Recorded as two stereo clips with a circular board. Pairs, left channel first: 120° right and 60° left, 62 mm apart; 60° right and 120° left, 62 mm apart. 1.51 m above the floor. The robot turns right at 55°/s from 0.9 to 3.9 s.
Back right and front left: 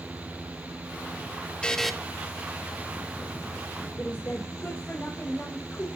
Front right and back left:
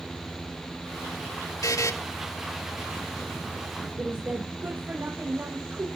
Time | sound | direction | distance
1.6 | a buzzer | 50° right | 1.7 m
4.0 | a woman speaking | straight behind | 2.5 m